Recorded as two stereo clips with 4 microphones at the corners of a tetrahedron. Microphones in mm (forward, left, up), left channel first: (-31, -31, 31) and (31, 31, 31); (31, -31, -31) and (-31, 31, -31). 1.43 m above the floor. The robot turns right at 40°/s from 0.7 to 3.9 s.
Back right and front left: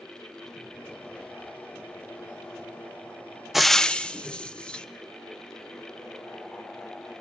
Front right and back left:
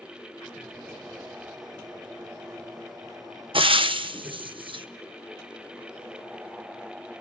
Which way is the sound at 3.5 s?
135° left.